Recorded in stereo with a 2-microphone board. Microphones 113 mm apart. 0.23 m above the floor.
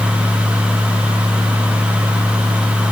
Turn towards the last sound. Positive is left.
No sound to turn to.